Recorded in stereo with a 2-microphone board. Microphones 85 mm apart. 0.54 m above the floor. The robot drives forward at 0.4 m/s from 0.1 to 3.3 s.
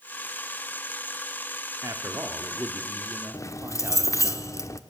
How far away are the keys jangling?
About 0.9 m.